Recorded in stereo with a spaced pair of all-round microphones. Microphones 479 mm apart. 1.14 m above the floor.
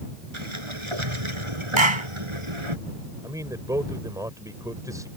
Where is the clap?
75° right (ahead or behind).